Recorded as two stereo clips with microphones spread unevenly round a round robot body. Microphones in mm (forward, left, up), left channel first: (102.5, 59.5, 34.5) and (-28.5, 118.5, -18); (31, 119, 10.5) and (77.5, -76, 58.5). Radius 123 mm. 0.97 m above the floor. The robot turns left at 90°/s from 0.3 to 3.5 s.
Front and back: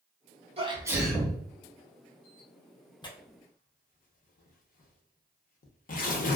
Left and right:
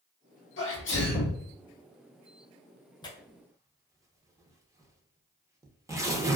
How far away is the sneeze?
About 1.3 m.